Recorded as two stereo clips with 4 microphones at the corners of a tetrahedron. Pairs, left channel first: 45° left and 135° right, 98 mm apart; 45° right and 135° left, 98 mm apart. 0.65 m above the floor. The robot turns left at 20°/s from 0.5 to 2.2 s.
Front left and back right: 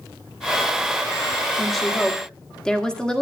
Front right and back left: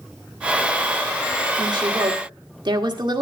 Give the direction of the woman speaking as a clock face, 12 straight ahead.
7 o'clock.